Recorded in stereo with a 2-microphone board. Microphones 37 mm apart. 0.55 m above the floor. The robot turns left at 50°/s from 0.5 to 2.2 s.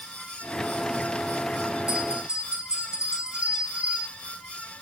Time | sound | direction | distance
1.9 | a bell | 25° right (ahead or behind) | 1.0 m